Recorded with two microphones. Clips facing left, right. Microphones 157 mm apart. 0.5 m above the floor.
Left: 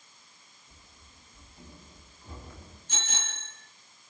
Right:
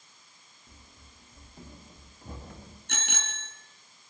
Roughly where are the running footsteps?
Right.